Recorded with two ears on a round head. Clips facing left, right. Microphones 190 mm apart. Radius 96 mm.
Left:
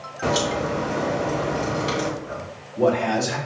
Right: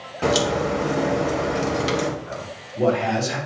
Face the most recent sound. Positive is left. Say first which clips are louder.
# even
turn(degrees=10)  # may be behind; listen again after turning